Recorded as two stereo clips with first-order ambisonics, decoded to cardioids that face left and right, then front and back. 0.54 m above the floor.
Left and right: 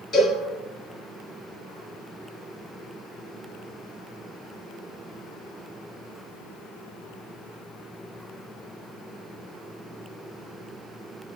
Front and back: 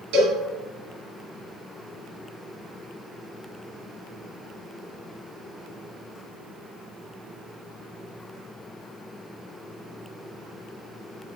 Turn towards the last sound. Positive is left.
turn(degrees=150)